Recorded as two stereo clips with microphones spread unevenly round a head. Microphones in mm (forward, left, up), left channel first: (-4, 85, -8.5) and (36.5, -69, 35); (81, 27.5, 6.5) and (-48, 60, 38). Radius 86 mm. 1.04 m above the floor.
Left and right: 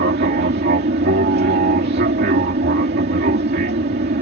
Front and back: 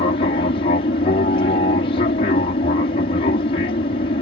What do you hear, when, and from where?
0.0 s an aircraft: 50° right